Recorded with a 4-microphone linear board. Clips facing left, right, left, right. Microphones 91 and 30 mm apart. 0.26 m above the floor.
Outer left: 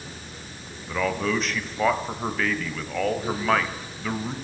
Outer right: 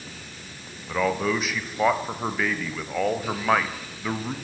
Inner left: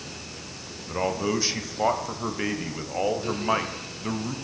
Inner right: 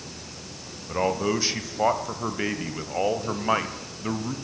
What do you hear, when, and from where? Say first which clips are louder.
0.9 s a man speaking: outer right 1 dB, inner right 2 dB; 5° right (ahead or behind), 1.0 m